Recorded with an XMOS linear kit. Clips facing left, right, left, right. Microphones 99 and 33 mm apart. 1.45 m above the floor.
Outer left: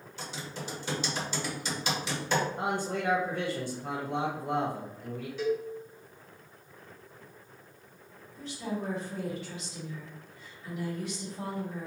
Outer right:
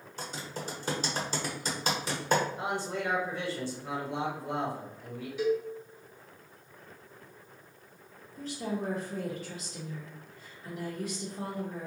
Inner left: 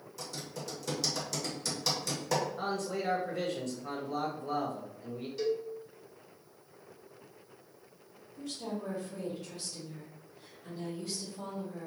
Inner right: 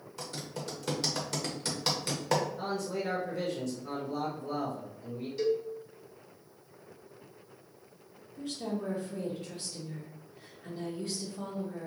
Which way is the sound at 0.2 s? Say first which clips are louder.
Outer right 1 dB, inner right 2 dB; 45° right (ahead or behind).